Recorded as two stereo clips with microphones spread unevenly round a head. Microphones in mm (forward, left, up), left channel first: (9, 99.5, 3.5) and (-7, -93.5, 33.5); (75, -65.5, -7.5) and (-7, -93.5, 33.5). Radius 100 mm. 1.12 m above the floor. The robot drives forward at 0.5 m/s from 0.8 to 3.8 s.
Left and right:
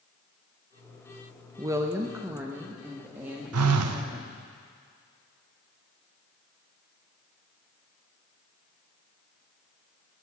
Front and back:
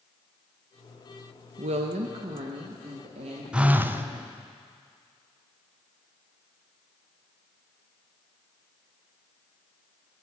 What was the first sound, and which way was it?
A woman speaking, 170° right.